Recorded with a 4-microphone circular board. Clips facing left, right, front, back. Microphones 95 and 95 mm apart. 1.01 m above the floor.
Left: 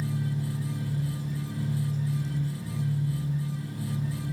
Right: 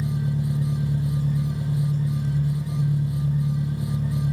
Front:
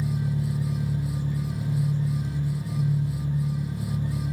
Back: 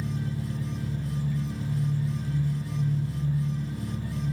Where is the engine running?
65° right, 1.3 m.